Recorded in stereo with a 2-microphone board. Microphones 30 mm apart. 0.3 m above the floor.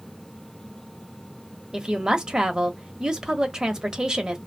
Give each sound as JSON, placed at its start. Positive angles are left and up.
{"t": 1.7, "sound": "a woman speaking", "side_deg": -25, "distance_m": 1.0}